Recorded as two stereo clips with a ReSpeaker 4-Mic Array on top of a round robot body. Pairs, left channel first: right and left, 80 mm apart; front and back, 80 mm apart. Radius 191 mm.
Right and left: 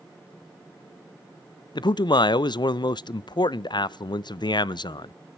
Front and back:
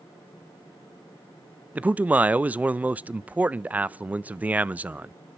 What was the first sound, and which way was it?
A man speaking, 110° right.